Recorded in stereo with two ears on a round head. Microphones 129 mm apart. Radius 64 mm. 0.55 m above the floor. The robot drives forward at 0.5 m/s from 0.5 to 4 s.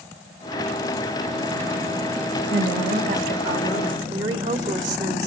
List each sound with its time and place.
2.5 s a woman speaking: 40° right (ahead or behind), 1.7 m; by 5.3 s 30° right (ahead or behind), 2 m